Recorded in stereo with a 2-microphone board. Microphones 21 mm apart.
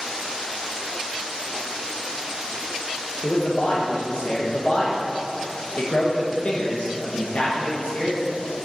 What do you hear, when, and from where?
3.2 s a man speaking: 55° left (ahead or behind), 1.0 m